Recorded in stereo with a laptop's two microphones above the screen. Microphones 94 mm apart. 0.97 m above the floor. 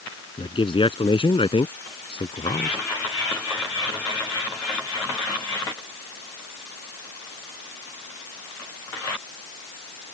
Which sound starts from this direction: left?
A man speaking, at 0.4 s.